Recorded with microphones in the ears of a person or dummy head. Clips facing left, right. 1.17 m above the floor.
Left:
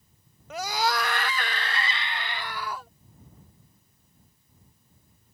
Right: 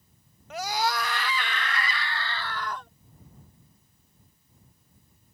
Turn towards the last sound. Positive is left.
turn(degrees=5)  # may be behind; listen again after turning